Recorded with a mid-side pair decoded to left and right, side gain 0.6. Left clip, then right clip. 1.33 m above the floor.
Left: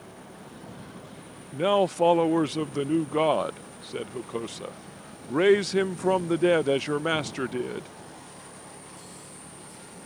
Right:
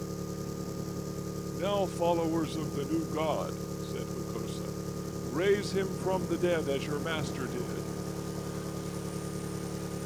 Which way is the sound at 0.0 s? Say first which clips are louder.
Right 6 dB; 60° right.